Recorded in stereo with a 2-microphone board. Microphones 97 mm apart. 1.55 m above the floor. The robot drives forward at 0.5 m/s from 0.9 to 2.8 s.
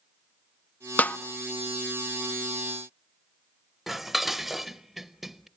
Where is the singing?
No singing in this recording.